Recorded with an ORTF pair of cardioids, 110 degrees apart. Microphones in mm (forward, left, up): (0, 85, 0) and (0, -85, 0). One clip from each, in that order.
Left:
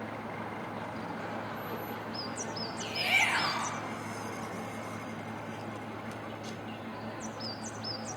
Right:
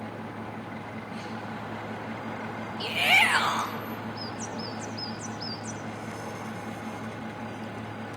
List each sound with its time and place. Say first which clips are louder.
0.0 s a fan: right 1 dB; 35° right, 0.7 m
2.8 s a shout: right 7 dB; 50° right, 0.9 m